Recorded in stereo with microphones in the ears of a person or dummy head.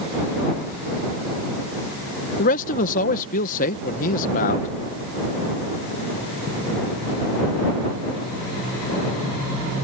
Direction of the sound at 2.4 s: 50° left (ahead or behind).